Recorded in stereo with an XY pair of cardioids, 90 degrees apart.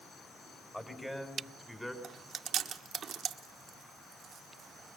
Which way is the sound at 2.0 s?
65° right.